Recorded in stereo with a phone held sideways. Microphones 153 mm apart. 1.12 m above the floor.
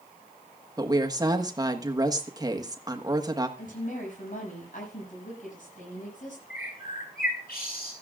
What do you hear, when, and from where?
0.8 s a woman speaking: 25° right (ahead or behind), 1.4 m
3.6 s a woman speaking: 60° left (ahead or behind), 7 m
6.5 s a bird: 85° left, 5.5 m